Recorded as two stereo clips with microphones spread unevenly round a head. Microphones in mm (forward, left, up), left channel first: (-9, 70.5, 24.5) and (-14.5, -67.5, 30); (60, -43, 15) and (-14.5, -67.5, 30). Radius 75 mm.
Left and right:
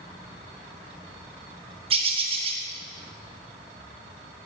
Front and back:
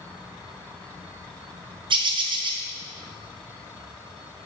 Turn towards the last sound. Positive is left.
turn(degrees=-145)